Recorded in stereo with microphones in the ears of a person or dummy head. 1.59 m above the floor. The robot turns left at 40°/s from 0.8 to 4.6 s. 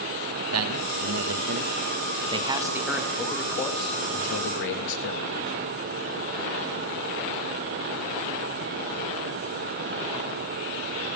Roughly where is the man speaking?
Right.